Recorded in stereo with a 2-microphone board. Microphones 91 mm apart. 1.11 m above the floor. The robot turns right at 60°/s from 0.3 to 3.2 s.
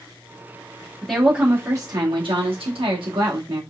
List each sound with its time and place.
1.0 s a woman speaking: 170° left, 1.6 m; by 3.6 s 55° right, 1.6 m